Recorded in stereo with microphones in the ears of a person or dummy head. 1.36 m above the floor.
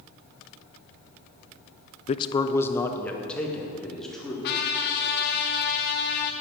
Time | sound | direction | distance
2.1 | a man speaking | 35° left (ahead or behind) | 0.5 m
4.4 | a trumpet | 55° left (ahead or behind) | 1.6 m